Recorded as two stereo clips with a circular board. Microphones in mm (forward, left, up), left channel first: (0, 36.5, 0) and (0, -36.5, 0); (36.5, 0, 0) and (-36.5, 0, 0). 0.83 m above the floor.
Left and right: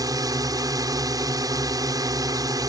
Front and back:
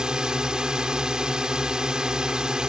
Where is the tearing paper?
I don't hear tearing paper.